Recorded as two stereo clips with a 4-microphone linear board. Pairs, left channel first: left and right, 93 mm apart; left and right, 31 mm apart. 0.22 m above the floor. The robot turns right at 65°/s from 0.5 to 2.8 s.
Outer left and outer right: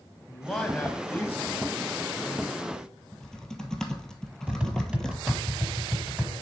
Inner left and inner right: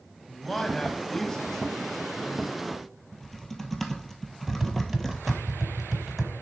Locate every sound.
0.3 s a man speaking: 10° left (ahead or behind), 1.2 m; by 2.9 s 5° left (ahead or behind), 1.2 m
3.1 s typing on a keyboard: 5° left (ahead or behind), 1.0 m
4.5 s tapping: 10° right (ahead or behind), 1.2 m